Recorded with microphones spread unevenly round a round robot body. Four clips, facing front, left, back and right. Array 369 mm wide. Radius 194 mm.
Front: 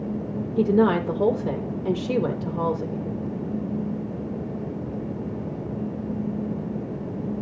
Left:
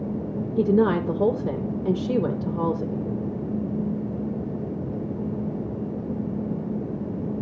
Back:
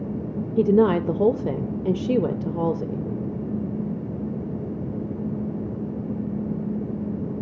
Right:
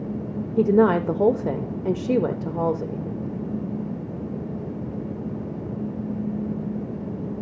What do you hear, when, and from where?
0.6 s a woman speaking: 155° right, 0.9 m